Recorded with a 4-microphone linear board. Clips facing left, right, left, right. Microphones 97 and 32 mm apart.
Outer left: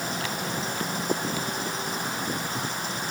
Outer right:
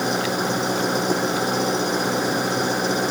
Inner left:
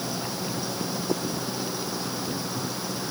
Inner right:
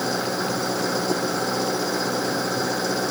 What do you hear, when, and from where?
0.0 s an engine running: 70° right (ahead or behind)